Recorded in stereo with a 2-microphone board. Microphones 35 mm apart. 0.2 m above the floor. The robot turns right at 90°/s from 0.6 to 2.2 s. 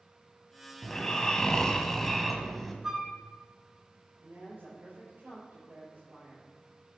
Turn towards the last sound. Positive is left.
turn(degrees=-70)  # may be behind; listen again after turning